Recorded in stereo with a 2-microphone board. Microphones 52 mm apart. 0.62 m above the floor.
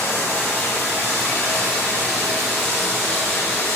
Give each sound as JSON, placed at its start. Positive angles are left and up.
{"t": 0.0, "sound": "running water", "side_deg": 60, "distance_m": 0.8}